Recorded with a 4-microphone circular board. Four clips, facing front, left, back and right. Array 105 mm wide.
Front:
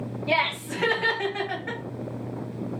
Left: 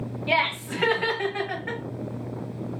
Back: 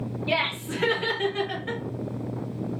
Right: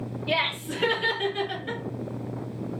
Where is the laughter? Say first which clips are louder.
Left 3 dB, front 3 dB; 70° left, 1.8 m; by 1.8 s 50° left, 1.2 m.